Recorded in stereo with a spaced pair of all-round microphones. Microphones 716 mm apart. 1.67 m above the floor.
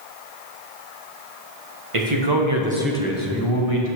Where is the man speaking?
45° right (ahead or behind), 1.4 m; by 4.0 s 55° left (ahead or behind), 1.4 m.